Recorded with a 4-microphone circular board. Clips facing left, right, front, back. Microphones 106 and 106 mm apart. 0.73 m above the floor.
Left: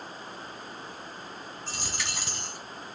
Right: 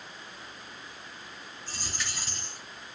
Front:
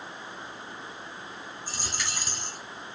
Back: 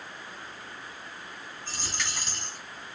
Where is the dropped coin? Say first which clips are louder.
Left 1 dB, even; 80° left, 1.8 m.